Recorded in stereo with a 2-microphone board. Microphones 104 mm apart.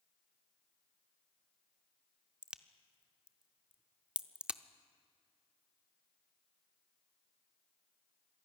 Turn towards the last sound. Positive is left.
turn(degrees=-10)  # may be behind; listen again after turning